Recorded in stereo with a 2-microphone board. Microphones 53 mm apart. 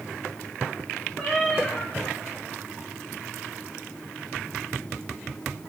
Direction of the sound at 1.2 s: 10° left (ahead or behind).